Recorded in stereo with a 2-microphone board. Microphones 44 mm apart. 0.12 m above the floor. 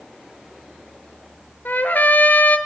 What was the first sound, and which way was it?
A trumpet, 50° left (ahead or behind).